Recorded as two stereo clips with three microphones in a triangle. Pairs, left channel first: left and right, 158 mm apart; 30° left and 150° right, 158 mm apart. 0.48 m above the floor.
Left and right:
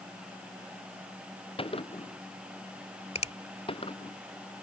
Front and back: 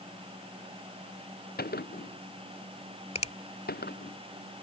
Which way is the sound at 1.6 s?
35° left.